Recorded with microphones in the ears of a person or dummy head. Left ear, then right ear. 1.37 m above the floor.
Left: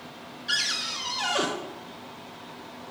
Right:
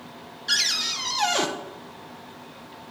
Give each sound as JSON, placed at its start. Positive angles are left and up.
{"t": 0.5, "sound": "a cupboard door", "side_deg": -20, "distance_m": 0.6}